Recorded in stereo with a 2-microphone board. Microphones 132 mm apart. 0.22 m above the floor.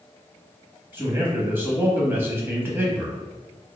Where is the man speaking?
15° right (ahead or behind), 0.9 m.